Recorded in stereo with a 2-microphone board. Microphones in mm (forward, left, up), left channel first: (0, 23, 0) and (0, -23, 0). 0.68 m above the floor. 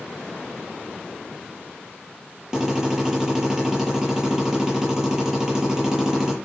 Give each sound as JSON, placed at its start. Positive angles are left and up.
{"t": 2.5, "sound": "a drill", "side_deg": -15, "distance_m": 7.5}